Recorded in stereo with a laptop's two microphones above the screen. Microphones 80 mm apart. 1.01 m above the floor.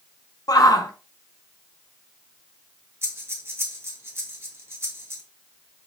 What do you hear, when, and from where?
0.5 s a shout: 50° left (ahead or behind), 0.7 m
3.0 s breathing: 30° right (ahead or behind), 1.3 m